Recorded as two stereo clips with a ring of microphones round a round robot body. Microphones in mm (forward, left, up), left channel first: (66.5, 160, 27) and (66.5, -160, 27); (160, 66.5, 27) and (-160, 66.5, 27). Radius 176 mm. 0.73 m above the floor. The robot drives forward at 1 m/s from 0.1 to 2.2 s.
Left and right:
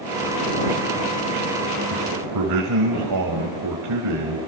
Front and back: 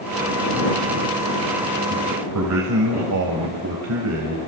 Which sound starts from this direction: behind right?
A man speaking, at 1.9 s.